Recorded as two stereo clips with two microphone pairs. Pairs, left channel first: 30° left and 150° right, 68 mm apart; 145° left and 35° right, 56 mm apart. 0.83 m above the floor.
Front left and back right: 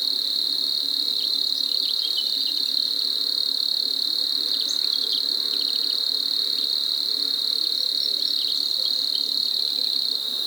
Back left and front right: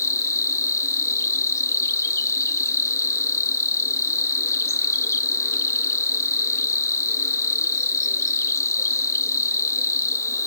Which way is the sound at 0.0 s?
120° left.